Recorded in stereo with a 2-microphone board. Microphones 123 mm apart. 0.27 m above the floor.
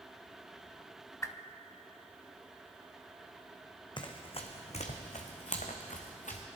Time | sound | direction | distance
1.2 | a whoosh | 25° left (ahead or behind) | 0.6 m
4.0 | running footsteps | 40° left (ahead or behind) | 1.0 m